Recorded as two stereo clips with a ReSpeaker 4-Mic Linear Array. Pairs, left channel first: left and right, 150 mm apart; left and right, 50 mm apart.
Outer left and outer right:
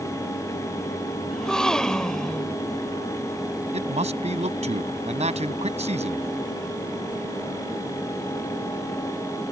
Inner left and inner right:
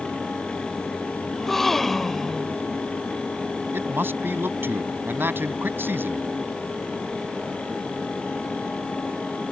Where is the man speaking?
50° right (ahead or behind).